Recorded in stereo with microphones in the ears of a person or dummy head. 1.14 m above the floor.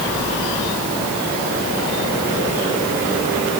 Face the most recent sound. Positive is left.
No sound to turn to.